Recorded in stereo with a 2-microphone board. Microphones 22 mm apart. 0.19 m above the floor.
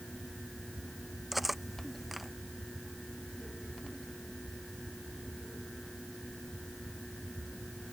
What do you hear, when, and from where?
1.3 s cutlery clinking: 5° right (ahead or behind)